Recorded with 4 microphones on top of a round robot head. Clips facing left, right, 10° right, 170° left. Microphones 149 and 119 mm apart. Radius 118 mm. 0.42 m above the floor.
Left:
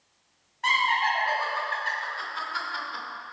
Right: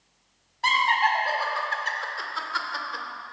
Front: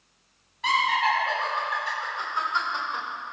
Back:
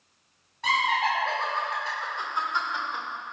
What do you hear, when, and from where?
0.6 s laughter: 140° right, 3.5 m; by 3.0 s 95° right, 1.5 m